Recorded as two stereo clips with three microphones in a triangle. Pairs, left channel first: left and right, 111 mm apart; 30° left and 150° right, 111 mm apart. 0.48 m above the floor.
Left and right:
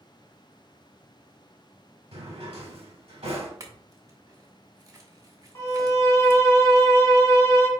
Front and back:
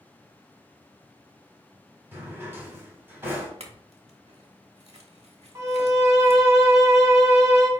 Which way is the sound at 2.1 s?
80° right.